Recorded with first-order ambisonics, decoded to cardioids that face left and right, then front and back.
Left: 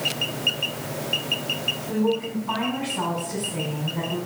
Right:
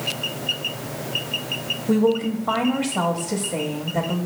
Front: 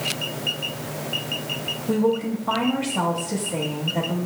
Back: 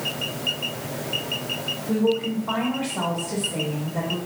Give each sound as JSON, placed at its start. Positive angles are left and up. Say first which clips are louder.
{"t": 1.9, "sound": "a woman speaking", "louder": "right 8 dB, front 1 dB", "azimuth_deg": -65, "distance_m": 0.8}